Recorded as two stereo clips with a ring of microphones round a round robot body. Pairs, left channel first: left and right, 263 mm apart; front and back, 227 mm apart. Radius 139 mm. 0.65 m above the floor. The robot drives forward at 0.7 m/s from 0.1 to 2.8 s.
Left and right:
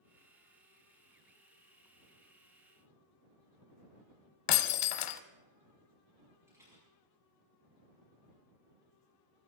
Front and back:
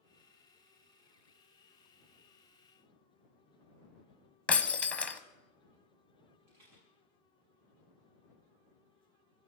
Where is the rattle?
170° right, 7 m.